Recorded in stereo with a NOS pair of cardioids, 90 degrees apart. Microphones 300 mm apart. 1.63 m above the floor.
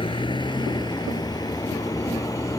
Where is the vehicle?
15° left; by 2.6 s 10° left.